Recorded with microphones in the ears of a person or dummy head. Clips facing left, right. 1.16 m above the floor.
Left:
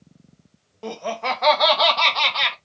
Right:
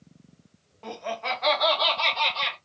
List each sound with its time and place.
0.8 s laughter: 45° left (ahead or behind), 1.1 m; by 2.5 s 85° left, 1.5 m